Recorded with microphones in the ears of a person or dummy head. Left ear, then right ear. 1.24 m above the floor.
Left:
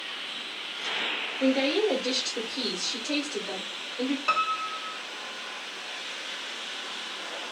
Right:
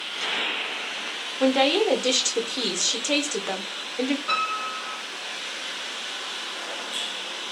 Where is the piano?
70° left (ahead or behind), 1.1 m.